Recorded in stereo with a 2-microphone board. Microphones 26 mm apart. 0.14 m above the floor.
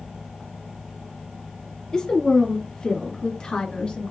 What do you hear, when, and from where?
1.9 s a woman speaking: 25° left (ahead or behind), 2.5 m; by 4.1 s 35° left (ahead or behind), 2.0 m